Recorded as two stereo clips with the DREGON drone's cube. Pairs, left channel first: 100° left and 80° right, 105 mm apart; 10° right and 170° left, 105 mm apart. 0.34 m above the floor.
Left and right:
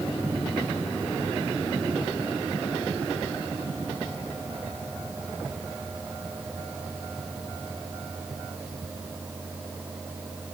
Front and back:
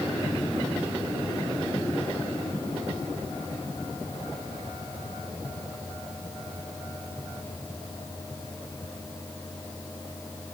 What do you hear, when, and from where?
Only background noise.